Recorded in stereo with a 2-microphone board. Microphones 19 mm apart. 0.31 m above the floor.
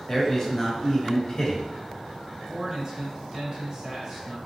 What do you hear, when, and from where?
0.1 s a man speaking: 20° left (ahead or behind), 1.0 m
2.5 s a man speaking: 30° right (ahead or behind), 1.1 m